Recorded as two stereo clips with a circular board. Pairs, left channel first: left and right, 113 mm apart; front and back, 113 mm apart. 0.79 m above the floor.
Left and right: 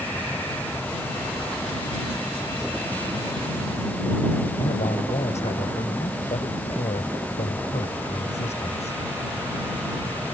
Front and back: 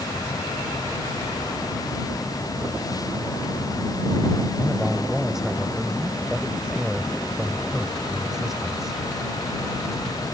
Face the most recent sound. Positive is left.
turn(degrees=95)